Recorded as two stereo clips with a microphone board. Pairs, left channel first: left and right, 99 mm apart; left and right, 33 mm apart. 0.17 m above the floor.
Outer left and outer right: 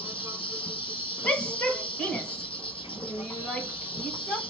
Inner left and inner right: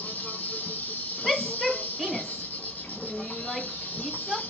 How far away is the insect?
About 1.0 m.